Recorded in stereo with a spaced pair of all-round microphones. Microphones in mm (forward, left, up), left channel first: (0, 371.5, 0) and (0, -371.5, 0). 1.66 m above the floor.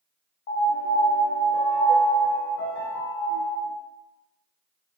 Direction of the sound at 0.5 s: 55° left (ahead or behind).